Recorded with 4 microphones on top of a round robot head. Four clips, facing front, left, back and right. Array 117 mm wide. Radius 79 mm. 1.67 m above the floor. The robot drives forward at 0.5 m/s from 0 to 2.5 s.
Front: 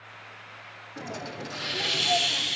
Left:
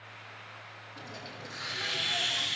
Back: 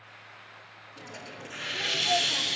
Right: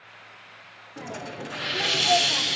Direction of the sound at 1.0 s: 50° right.